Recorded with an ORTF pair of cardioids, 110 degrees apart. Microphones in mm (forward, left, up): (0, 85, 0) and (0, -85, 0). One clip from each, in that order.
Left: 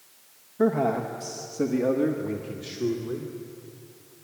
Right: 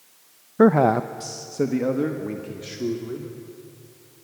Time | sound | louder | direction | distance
0.6 | a man speaking | right 7 dB | 65° right | 0.6 m